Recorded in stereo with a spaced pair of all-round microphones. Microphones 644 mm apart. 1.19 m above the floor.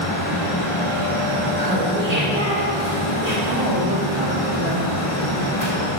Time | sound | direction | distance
0.0 | a fan | 55° left (ahead or behind) | 1.6 m
1.6 | laughter | 70° right (ahead or behind) | 2.5 m
3.5 | a woman speaking | 40° right (ahead or behind) | 2 m